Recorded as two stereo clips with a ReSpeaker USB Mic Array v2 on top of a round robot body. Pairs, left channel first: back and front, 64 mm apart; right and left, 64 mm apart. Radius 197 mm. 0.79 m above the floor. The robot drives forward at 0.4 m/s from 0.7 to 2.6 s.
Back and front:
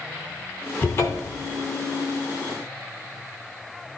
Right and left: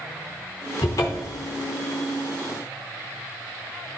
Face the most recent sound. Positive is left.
turn(degrees=-160)